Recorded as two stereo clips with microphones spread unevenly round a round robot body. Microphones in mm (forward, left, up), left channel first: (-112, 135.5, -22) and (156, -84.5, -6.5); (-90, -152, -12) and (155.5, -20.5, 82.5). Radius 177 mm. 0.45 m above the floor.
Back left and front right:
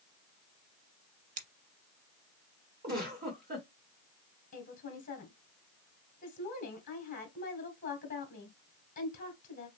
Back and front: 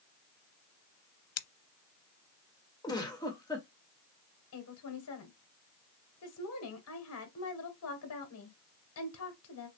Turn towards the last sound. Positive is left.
turn(degrees=-155)